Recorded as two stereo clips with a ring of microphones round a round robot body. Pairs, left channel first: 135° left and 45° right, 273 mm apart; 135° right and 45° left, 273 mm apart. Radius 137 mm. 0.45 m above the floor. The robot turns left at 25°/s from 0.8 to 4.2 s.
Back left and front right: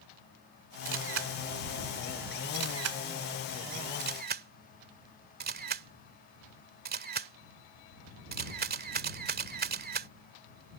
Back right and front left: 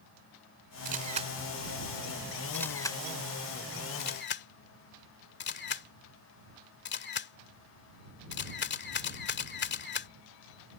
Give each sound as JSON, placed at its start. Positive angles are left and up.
{"t": 0.8, "sound": "a camera shutter", "azimuth_deg": -10}